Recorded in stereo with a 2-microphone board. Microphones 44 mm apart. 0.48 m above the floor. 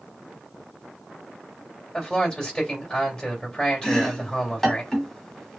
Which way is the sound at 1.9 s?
20° left (ahead or behind).